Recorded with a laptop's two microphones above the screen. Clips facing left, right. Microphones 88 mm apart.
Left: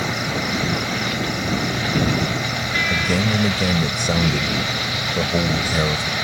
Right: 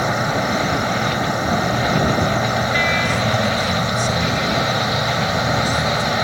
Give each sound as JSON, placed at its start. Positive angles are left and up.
{"t": 0.0, "sound": "an insect", "side_deg": -35}
{"t": 2.9, "sound": "a man speaking", "side_deg": 65}